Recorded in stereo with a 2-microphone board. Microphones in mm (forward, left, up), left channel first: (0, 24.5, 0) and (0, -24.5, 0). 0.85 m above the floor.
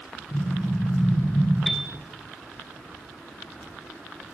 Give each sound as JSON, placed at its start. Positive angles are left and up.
{"t": 0.3, "sound": "an explosion", "side_deg": 80, "distance_m": 7.0}
{"t": 1.7, "sound": "a piano", "side_deg": -5, "distance_m": 1.6}